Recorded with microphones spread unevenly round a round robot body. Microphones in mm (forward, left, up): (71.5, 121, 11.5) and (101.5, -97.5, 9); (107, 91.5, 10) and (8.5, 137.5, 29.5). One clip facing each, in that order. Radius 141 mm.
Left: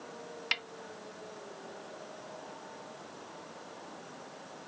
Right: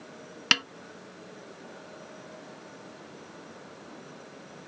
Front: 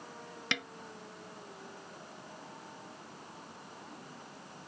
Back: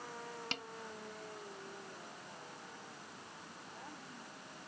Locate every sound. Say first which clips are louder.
0.5 s a snare drum: right 11 dB, front 11 dB; 80° right